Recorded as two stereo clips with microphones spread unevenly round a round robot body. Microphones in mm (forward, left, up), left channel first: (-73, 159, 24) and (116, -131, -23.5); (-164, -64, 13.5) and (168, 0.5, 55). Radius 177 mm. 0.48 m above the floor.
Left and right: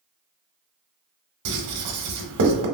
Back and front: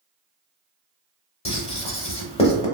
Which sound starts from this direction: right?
Writing, at 1.4 s.